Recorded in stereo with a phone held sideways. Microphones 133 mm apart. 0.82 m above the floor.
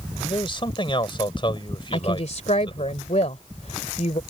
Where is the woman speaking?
60° left (ahead or behind).